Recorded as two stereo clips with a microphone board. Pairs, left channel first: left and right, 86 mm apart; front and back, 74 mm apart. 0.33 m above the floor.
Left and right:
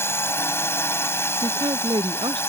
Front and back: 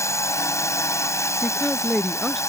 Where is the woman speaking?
90° right.